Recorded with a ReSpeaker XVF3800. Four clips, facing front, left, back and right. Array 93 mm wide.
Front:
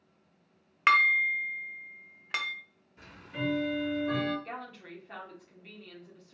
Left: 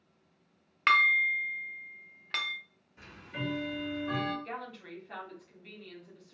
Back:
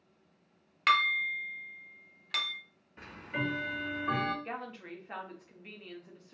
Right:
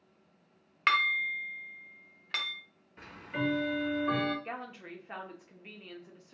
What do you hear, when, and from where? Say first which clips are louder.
0.9 s dishes clattering: left 4 dB, front 4 dB; 10° left, 0.6 m
3.0 s ticking: right 5 dB, back 1 dB; 140° right, 0.6 m
4.5 s a woman speaking: even, back 1 dB; 125° right, 0.7 m